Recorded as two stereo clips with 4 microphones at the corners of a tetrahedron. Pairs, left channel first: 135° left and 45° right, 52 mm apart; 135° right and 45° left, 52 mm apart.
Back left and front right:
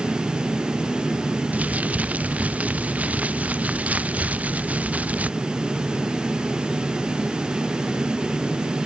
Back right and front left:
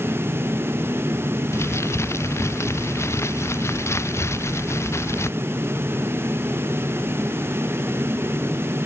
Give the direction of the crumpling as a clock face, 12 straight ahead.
4 o'clock.